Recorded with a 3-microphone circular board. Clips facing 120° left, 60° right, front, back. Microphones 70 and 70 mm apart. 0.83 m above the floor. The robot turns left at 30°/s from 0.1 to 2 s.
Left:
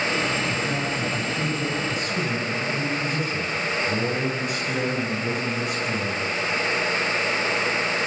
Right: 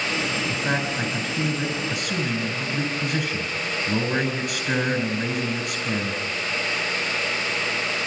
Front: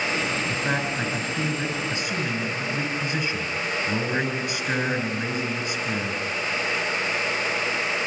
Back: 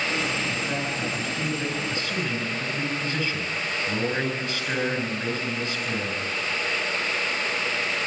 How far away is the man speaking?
About 9.5 m.